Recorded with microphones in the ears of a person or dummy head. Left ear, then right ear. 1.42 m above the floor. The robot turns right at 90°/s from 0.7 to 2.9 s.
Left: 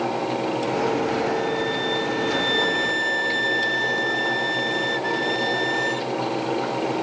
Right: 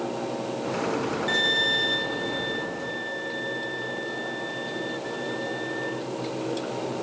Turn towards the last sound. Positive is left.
turn(degrees=75)